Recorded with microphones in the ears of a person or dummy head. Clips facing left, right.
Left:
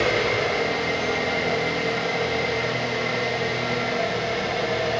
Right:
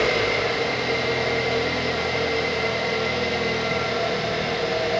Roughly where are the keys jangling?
I don't hear keys jangling.